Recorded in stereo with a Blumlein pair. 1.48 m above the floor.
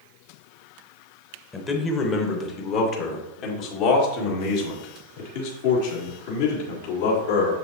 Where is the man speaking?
20° left, 1.6 m; by 7.5 s 60° left, 4 m.